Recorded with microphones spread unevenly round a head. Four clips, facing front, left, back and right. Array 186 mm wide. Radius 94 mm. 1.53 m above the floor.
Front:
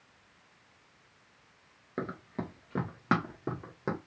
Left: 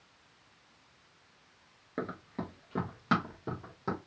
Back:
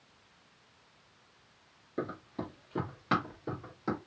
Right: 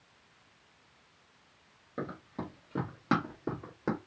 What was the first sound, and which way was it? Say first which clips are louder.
Running footsteps: left 1 dB, even; 35° left.